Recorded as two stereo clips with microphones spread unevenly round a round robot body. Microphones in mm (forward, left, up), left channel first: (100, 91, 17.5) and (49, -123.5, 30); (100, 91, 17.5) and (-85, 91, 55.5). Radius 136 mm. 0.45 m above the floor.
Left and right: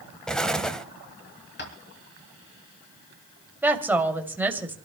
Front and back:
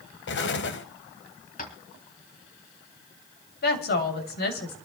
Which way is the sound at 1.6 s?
40° left.